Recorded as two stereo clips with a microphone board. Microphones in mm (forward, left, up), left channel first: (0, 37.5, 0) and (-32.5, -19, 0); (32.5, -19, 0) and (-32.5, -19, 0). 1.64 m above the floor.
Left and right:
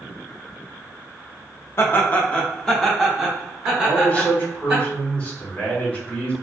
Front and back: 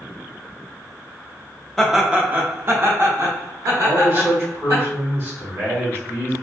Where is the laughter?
80° left, 0.5 m; by 4.8 s 165° left, 1.7 m.